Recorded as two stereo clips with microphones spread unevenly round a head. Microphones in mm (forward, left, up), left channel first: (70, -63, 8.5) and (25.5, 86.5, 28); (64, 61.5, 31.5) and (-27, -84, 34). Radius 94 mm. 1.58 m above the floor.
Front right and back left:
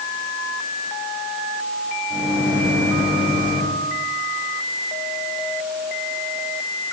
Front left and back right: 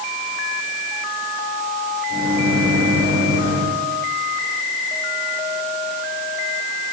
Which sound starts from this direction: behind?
A microwave, at 2.1 s.